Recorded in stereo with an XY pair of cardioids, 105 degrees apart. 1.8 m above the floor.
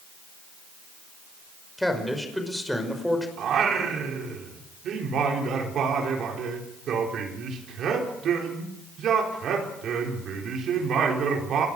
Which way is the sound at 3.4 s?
65° right.